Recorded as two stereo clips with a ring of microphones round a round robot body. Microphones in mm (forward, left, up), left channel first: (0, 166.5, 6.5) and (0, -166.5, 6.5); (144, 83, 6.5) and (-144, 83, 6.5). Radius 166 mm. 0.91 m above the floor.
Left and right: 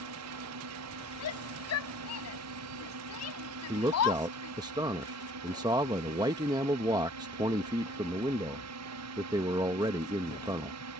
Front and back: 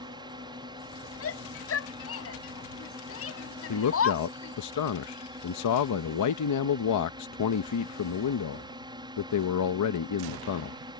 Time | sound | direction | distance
0.0 | a drone | 105° right | ?
1.2 | a shout | 40° left | ?
3.7 | a man speaking | 15° right | ?